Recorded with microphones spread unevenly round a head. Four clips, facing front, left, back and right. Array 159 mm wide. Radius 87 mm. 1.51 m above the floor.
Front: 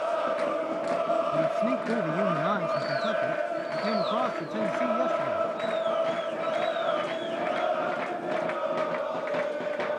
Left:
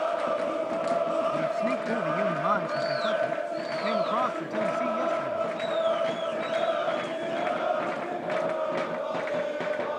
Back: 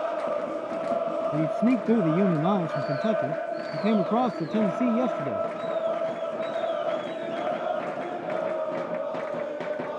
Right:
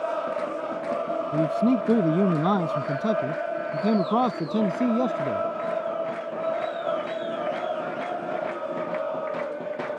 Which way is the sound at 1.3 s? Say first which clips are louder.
Right 5 dB, back 2 dB; 130° right.